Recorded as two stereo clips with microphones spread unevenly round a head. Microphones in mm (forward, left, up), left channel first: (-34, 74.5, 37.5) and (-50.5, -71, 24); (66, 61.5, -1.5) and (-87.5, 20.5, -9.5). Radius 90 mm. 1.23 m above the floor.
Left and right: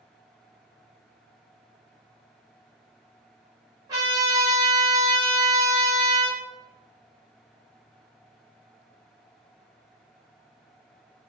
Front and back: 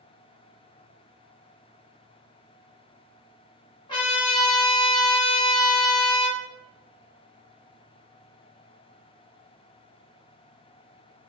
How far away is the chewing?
I don't hear chewing.